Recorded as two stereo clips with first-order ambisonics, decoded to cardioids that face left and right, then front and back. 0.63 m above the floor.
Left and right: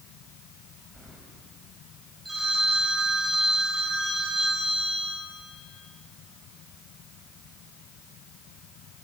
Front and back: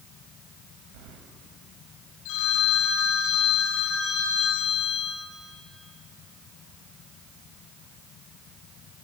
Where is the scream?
I don't hear a scream.